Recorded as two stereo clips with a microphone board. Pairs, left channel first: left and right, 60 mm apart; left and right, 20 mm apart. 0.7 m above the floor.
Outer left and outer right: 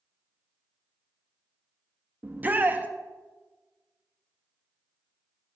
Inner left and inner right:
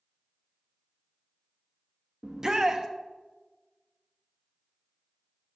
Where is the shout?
30° right (ahead or behind), 1.0 m.